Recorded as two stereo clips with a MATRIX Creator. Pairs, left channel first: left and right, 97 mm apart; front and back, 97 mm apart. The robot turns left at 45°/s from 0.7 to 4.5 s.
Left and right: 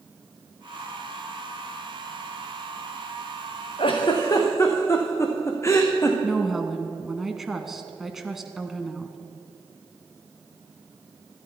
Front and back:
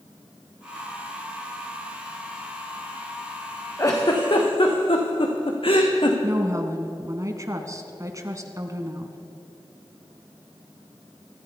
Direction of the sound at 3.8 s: 60° left.